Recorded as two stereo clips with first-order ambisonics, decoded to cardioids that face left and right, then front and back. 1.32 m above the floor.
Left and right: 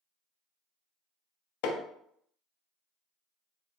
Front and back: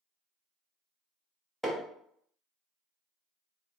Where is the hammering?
90° left, 0.5 m.